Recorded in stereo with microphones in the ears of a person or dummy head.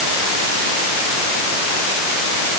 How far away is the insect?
No insect in this recording.